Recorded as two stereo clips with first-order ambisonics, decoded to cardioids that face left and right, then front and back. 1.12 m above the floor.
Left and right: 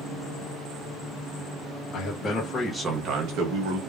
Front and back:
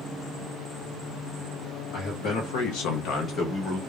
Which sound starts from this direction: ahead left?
A man speaking, at 1.9 s.